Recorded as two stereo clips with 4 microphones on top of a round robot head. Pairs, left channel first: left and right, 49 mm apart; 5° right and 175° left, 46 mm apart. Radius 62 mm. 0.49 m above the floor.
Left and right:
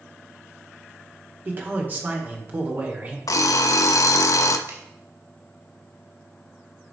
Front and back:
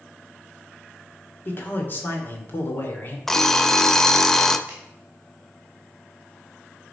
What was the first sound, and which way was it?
A man speaking, 40° right.